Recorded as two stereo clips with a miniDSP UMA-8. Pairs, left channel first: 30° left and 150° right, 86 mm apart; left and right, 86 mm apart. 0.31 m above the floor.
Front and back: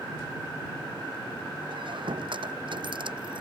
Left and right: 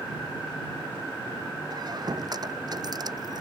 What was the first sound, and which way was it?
A squeak, 130° right.